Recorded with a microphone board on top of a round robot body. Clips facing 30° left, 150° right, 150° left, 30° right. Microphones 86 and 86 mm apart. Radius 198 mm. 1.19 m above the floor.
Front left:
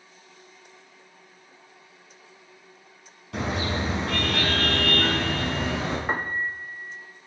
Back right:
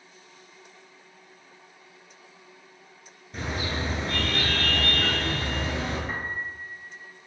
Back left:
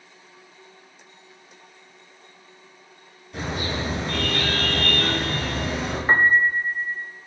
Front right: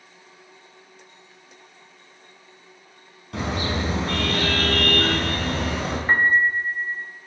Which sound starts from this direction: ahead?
A car horn, at 3.3 s.